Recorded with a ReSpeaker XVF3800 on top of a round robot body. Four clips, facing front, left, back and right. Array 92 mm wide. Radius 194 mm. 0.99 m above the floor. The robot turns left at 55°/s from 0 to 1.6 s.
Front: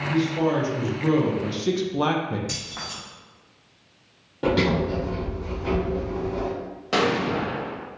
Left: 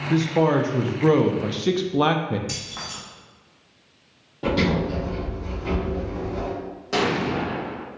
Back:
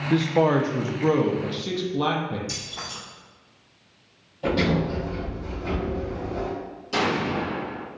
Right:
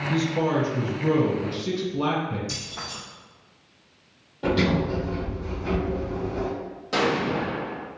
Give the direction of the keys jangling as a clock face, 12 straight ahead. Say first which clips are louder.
Left 1 dB, front 1 dB; 10 o'clock.